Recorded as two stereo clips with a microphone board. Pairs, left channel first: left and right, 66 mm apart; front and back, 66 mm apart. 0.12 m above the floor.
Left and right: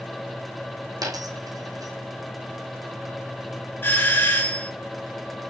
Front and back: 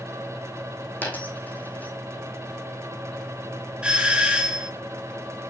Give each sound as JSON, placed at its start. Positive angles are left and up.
{"t": 1.0, "sound": "a dropped coin", "azimuth_deg": -65, "distance_m": 2.0}
{"t": 3.8, "sound": "a doorbell", "azimuth_deg": 115, "distance_m": 1.8}